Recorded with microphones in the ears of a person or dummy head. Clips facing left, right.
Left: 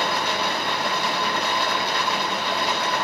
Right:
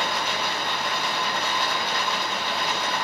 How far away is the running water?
About 2.5 m.